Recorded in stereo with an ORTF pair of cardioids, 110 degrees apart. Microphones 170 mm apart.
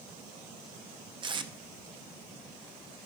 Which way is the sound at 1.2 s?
30° right.